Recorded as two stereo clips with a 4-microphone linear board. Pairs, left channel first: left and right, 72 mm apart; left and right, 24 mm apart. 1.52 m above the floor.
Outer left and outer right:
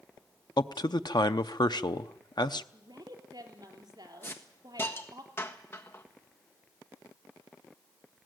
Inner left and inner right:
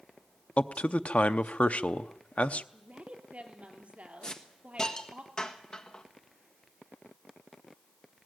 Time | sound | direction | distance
0.6 | a man speaking | 80° left | 0.7 m
2.7 | a woman speaking | 80° right | 3.5 m
4.2 | a hiss | 35° left (ahead or behind) | 1.5 m